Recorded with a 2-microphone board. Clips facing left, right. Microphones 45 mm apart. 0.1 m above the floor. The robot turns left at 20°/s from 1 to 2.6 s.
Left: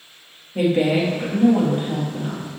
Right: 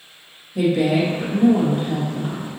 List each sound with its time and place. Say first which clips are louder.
0.6 s a woman speaking: even; 45° left, 2 m; by 2.5 s 15° left, 2 m